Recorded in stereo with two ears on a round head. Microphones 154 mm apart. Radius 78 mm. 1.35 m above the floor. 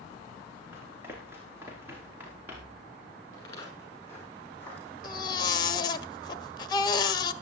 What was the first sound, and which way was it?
Running footsteps, 15° right (ahead or behind).